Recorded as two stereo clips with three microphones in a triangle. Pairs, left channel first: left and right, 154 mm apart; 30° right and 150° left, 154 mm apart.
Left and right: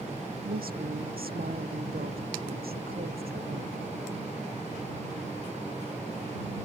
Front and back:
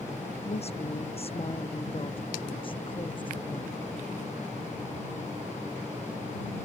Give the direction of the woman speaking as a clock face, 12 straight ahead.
3 o'clock.